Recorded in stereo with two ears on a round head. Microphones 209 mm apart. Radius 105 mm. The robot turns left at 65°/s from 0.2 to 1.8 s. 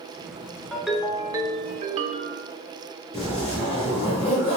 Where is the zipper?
30° left (ahead or behind), 1.9 m.